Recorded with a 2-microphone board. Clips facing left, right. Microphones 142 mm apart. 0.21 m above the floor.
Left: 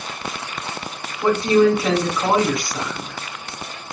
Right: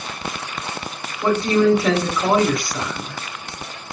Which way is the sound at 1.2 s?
25° left (ahead or behind).